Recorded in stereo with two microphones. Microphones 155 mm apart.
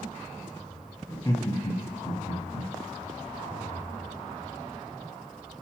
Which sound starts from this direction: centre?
Laughter, at 1.1 s.